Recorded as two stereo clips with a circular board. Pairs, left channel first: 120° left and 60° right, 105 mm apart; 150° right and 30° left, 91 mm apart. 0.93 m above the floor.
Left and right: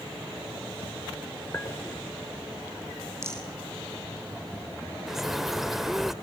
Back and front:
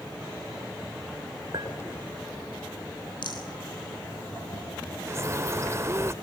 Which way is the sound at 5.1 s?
25° left.